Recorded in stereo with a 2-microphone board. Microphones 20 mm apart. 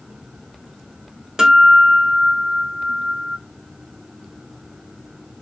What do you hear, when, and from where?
1.4 s a guitar: 30° right (ahead or behind), 0.7 m